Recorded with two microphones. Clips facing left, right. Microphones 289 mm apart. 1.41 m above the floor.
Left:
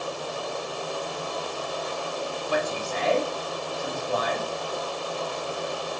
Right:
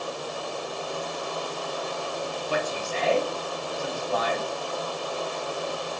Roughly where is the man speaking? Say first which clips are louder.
Left 2 dB; centre.